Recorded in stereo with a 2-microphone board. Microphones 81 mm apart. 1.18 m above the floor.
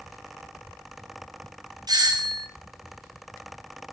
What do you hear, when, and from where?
1.9 s a doorbell: 55° right (ahead or behind), 1.7 m